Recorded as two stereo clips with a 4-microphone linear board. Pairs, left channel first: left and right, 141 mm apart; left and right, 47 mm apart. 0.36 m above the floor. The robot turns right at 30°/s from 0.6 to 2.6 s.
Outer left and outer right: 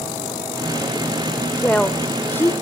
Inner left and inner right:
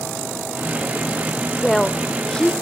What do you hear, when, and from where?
1.6 s a woman speaking: 5° left (ahead or behind), 0.9 m; by 2.5 s 15° left (ahead or behind), 0.9 m